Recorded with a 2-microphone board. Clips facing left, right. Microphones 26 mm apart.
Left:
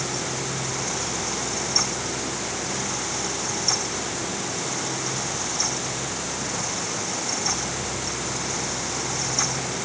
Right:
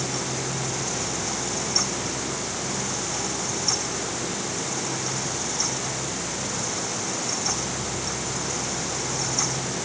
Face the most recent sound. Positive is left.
No sound to turn to.